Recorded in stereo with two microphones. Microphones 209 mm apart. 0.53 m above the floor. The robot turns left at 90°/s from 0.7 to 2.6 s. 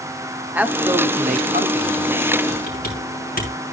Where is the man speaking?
10° right, 1.2 m; by 2.4 s 160° right, 1.2 m.